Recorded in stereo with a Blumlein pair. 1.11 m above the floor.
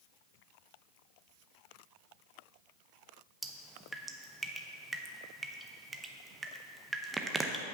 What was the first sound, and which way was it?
Dripping, 10° right.